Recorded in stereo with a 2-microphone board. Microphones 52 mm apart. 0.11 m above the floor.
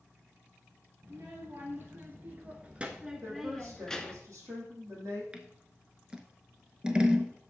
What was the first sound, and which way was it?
A child speaking, 50° right (ahead or behind).